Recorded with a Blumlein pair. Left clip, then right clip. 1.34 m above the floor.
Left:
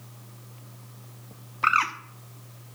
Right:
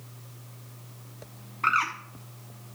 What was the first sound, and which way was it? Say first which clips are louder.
A bird: left 2 dB; 15° left.